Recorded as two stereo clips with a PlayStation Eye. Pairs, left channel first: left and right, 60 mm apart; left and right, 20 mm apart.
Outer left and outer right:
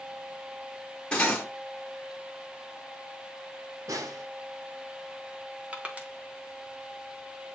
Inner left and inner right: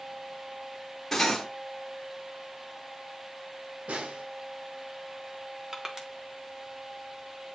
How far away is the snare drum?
About 0.7 m.